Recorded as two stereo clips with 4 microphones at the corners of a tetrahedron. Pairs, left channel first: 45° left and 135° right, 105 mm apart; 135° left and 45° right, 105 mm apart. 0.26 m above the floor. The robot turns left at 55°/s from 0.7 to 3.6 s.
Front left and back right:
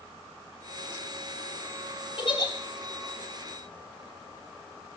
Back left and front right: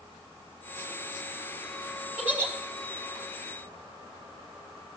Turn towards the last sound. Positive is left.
turn(degrees=-40)